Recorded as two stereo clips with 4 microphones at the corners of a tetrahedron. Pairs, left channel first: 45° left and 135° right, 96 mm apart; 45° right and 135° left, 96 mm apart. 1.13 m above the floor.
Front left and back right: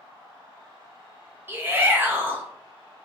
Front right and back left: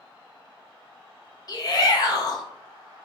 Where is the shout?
75° right, 0.7 m.